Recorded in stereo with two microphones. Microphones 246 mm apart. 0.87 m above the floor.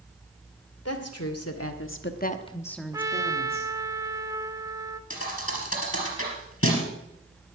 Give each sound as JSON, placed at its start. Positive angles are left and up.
{"t": 0.8, "sound": "a woman speaking", "side_deg": 80, "distance_m": 2.5}
{"t": 2.9, "sound": "a trumpet", "side_deg": -15, "distance_m": 0.7}
{"t": 5.1, "sound": "a thud", "side_deg": 60, "distance_m": 4.0}